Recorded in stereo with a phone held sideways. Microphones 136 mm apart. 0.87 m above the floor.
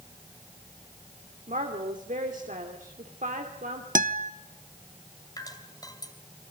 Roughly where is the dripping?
Left.